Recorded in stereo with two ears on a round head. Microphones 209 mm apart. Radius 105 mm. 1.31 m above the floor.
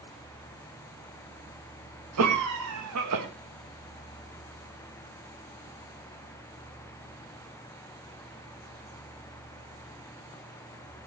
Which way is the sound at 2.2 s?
75° right (ahead or behind).